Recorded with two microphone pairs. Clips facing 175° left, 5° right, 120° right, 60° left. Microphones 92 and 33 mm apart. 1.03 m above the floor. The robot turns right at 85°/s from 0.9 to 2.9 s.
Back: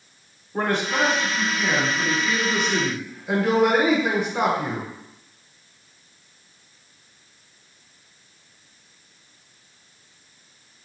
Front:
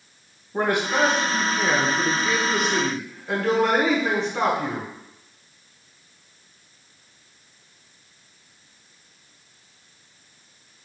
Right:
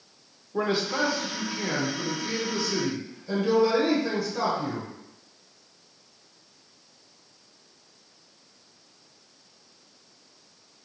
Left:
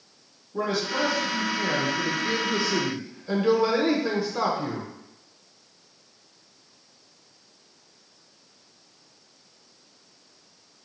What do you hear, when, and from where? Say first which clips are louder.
0.5 s a man speaking: front 1 dB, even; 70° right, 0.9 m; by 4.9 s 100° left, 0.9 m